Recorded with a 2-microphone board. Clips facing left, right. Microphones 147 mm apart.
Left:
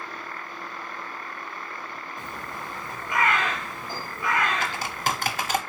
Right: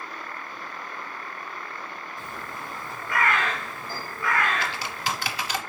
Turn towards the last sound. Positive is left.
turn(degrees=50)  # may be behind; listen again after turning